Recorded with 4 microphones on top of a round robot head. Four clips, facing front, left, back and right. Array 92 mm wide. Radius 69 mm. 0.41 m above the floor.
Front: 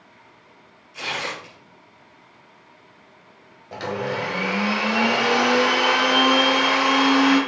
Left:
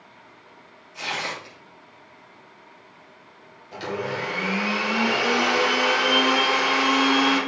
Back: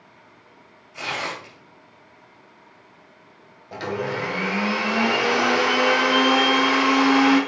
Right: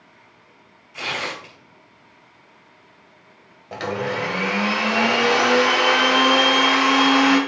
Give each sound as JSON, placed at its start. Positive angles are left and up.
{"t": 0.9, "sound": "tearing paper", "azimuth_deg": -125, "distance_m": 4.0}
{"t": 3.7, "sound": "a blender", "azimuth_deg": -100, "distance_m": 2.5}